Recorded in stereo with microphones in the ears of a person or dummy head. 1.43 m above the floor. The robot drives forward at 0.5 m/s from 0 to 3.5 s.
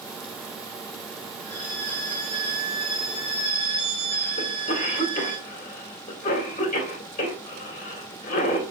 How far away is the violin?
About 3 m.